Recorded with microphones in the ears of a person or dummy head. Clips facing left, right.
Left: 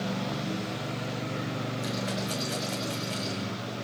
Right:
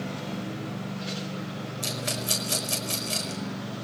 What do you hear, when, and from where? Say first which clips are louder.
1.8 s a rattle: left 1 dB; 55° right (ahead or behind), 4 m